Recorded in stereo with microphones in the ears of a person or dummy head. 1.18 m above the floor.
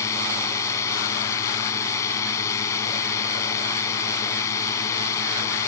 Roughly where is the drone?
Centre.